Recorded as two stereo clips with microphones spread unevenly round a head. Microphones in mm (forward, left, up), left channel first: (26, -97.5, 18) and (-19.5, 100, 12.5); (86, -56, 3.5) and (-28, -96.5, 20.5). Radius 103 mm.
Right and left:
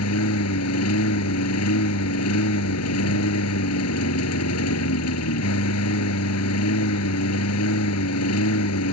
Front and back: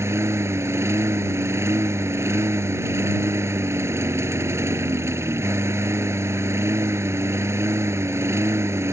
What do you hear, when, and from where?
0.0 s a lawn mower: 95° right